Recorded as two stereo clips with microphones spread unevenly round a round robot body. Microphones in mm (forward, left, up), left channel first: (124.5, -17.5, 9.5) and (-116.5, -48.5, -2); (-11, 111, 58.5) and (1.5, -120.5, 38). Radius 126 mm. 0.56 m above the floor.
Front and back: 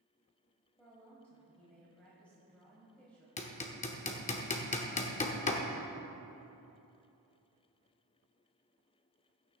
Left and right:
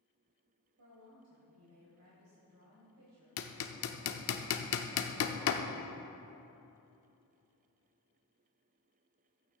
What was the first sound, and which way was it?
A woman speaking, 75° right.